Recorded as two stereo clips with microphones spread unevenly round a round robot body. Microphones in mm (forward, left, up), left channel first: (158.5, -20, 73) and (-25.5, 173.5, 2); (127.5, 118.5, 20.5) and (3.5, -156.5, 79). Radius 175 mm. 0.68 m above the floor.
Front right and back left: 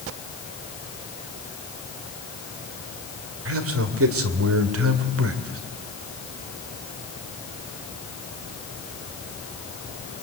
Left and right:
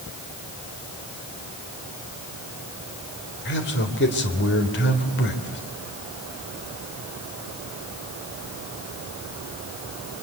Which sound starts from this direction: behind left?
A man speaking, at 3.5 s.